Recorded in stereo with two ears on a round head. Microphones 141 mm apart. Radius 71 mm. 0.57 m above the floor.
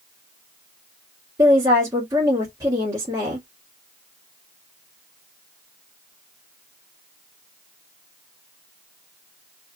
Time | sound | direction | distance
1.4 | a woman speaking | 20° right (ahead or behind) | 1.3 m